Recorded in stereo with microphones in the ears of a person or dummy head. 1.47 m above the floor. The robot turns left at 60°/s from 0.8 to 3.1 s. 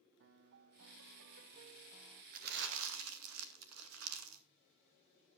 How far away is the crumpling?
About 1.8 m.